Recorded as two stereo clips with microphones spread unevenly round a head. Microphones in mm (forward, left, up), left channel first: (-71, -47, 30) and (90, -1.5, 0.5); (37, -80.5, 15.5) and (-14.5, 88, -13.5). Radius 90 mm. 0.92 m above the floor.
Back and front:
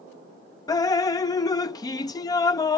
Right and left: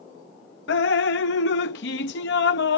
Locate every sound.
0.7 s dripping: 95° right